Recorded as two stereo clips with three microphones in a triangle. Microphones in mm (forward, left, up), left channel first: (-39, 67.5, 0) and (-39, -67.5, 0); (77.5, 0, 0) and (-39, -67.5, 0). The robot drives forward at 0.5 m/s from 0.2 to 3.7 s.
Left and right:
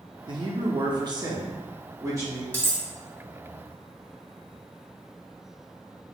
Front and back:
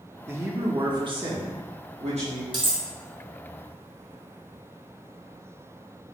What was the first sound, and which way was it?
A man speaking, 90° right.